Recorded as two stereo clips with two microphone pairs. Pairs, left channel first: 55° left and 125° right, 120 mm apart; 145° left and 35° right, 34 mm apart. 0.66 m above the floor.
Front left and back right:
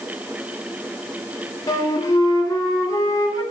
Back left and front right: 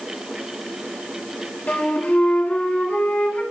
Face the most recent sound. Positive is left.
turn(degrees=105)